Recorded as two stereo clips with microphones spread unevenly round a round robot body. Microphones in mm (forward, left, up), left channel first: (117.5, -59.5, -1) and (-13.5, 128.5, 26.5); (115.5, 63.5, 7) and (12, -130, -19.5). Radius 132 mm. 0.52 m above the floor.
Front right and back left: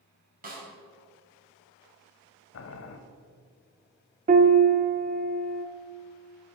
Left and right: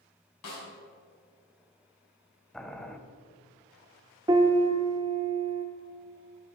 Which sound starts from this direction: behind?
A piano, at 4.3 s.